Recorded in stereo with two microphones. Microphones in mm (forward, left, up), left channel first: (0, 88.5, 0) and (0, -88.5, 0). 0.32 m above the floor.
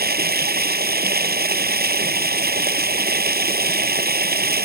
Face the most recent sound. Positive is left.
turn(degrees=-65)  # may be behind; listen again after turning